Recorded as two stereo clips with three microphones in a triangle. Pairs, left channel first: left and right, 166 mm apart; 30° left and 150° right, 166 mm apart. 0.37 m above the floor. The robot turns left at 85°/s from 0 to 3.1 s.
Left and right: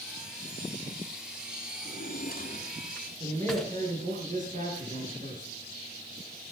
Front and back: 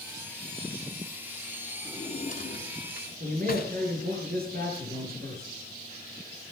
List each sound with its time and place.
1.9 s a drawer: 105° left, 1.6 m; by 3.7 s straight ahead, 1.6 m
3.2 s a man speaking: 130° right, 5.5 m